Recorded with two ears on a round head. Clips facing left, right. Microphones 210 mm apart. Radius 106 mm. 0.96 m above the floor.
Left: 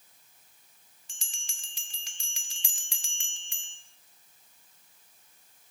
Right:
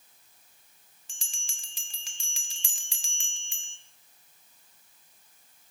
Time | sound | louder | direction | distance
1.1 | a bell | right 1 dB | 80° right | 1.1 m